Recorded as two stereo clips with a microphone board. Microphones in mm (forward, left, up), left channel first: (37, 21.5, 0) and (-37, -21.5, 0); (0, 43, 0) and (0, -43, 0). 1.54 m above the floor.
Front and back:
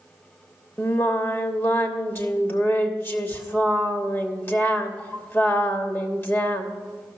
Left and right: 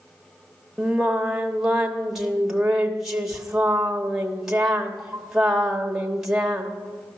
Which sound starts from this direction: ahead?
Singing, at 0.8 s.